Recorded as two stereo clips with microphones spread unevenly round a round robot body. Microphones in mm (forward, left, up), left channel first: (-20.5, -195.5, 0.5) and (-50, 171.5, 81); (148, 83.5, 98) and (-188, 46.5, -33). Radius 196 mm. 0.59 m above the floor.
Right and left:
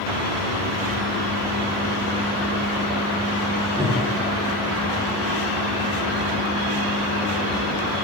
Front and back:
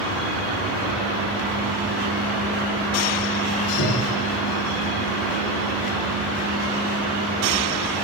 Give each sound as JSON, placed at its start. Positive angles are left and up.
{"t": 3.8, "sound": "breathing", "azimuth_deg": 10, "distance_m": 2.0}